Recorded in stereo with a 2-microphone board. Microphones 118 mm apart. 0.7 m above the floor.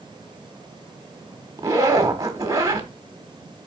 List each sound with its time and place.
1.6 s a zipper: 25° right (ahead or behind), 1.2 m